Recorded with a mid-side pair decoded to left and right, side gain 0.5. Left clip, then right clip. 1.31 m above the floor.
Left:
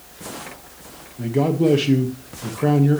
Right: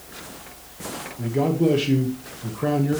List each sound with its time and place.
1.2 s a man speaking: 25° left, 1.2 m